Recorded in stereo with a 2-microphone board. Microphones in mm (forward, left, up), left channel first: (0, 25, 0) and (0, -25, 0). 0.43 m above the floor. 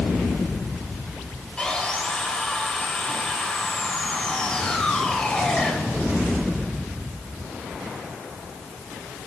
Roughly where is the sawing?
Centre.